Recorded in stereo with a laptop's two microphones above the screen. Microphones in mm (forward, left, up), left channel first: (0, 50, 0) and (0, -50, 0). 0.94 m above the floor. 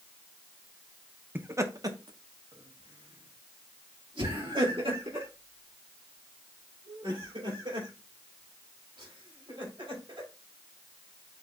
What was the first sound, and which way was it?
Laughter, 20° right (ahead or behind).